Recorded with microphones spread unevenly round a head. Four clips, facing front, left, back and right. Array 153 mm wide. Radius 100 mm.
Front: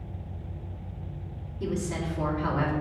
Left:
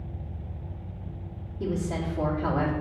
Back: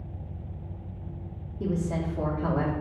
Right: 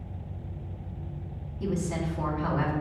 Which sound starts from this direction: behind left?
A woman speaking, at 1.6 s.